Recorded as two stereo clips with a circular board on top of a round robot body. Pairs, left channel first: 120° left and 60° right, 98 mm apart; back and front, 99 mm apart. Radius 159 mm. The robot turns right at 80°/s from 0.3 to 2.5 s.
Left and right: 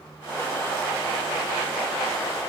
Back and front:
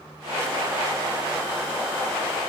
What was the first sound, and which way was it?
Only background noise.